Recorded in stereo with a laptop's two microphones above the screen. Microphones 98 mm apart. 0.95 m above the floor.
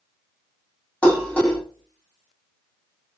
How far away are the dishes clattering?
About 1.1 m.